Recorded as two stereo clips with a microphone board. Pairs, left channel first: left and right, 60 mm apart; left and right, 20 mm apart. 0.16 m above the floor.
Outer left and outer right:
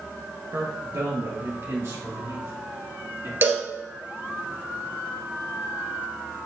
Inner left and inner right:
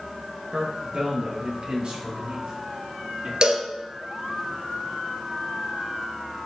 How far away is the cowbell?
About 1.1 m.